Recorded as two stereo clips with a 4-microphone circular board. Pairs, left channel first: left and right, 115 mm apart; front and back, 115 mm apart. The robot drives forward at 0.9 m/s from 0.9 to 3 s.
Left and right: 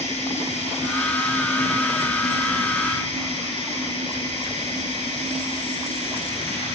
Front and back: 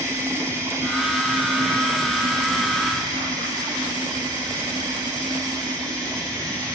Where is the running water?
115° left, 9 m; by 6.8 s 125° left, 10 m.